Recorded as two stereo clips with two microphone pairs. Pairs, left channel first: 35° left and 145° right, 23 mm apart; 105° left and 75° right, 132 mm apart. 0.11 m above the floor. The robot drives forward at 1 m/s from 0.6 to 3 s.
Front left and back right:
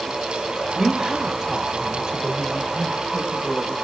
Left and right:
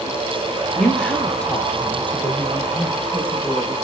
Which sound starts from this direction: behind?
A woman speaking, at 0.7 s.